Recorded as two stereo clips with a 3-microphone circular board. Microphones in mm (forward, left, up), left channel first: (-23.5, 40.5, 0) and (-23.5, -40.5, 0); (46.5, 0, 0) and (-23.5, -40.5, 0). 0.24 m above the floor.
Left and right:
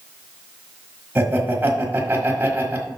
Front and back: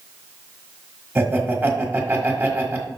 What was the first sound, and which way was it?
Laughter, 125° right.